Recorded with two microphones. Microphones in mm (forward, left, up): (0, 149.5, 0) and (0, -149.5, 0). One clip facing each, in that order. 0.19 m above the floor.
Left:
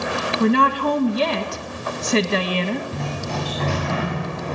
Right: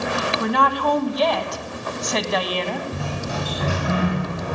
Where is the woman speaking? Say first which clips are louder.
Left 6 dB; 30° left (ahead or behind), 1.5 m.